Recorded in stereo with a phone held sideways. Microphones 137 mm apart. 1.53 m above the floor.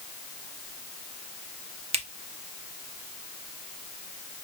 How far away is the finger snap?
About 0.8 m.